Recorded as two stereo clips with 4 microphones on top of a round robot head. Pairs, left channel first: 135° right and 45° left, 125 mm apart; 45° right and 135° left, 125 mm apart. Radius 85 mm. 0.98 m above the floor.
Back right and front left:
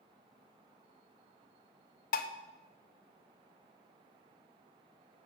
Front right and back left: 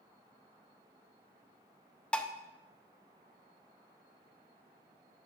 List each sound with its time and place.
2.1 s dishes clattering: 130° right, 0.7 m